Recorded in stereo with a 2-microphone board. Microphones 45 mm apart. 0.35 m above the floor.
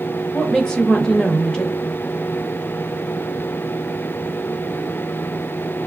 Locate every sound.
0.3 s a woman speaking: 20° left (ahead or behind), 1.0 m